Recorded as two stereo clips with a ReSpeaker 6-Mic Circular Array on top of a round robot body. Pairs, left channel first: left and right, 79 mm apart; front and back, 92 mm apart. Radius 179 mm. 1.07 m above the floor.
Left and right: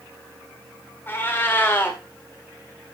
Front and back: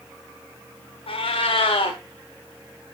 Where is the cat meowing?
25° left, 1.7 m.